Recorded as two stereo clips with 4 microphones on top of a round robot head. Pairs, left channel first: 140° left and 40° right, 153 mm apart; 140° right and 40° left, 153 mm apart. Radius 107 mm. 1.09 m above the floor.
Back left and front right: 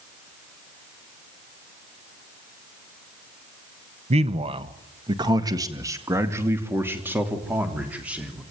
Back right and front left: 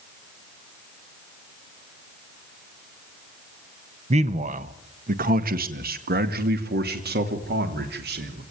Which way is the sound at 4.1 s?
Straight ahead.